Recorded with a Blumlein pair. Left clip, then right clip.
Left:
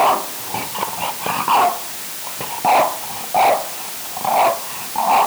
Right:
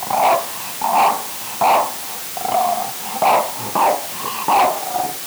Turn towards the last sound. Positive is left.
No sound to turn to.